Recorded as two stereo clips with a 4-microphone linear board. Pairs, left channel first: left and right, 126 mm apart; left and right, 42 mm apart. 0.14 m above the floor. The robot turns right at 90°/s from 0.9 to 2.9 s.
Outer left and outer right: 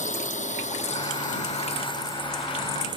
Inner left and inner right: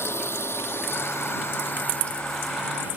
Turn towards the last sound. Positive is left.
turn(degrees=-40)  # may be behind; listen again after turning